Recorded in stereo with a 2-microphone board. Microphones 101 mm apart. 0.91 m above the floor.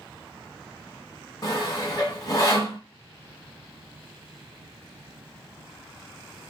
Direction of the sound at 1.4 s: 40° left (ahead or behind).